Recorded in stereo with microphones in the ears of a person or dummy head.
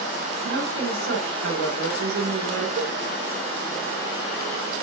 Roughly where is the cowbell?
Right.